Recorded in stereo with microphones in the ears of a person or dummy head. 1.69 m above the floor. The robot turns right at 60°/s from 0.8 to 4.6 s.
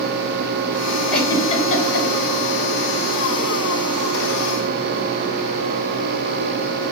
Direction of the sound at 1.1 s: 5° left (ahead or behind).